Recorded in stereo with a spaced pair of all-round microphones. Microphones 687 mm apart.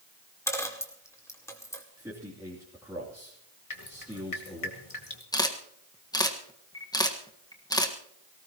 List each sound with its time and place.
0.5 s a dropped coin: 5° left (ahead or behind), 1.9 m
2.0 s a man speaking: 5° right (ahead or behind), 3 m
3.7 s dripping: 50° left (ahead or behind), 2 m
5.3 s a camera shutter: 5° left (ahead or behind), 1.5 m